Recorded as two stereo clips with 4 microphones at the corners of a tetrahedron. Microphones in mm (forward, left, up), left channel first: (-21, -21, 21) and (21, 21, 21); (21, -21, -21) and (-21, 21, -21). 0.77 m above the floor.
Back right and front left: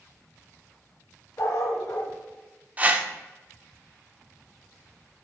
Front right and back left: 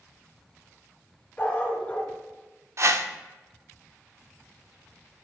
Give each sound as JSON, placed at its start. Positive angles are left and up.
{"t": 1.4, "sound": "a dog barking", "azimuth_deg": -105, "distance_m": 1.3}
{"t": 2.8, "sound": "a whoosh", "azimuth_deg": 105, "distance_m": 0.5}